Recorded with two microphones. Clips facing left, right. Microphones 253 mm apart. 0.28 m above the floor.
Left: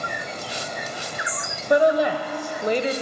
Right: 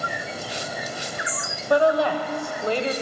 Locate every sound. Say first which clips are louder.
1.7 s a woman speaking: left 1 dB; 20° left (ahead or behind), 0.9 m